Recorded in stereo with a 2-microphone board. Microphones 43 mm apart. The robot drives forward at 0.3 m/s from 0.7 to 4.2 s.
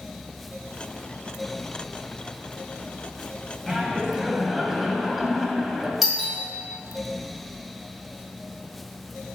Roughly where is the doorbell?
Centre.